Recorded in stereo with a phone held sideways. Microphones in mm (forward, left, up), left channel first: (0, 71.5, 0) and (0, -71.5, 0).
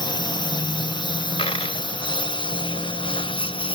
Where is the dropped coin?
40° left (ahead or behind).